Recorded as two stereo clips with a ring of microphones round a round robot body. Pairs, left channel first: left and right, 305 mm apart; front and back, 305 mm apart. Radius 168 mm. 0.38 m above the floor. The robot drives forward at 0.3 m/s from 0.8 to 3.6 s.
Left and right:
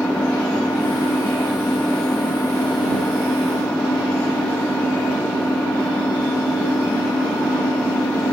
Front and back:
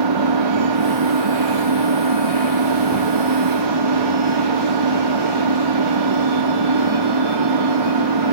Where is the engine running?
175° left.